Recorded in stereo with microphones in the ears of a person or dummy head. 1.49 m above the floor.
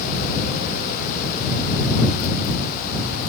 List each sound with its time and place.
Only background noise.